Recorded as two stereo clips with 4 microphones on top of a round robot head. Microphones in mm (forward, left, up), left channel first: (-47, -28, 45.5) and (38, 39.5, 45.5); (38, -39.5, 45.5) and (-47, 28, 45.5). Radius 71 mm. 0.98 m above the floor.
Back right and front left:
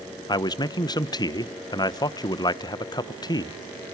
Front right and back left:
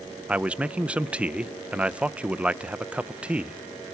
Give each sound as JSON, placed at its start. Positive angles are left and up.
{"t": 0.3, "sound": "a man speaking", "azimuth_deg": -150, "distance_m": 0.7}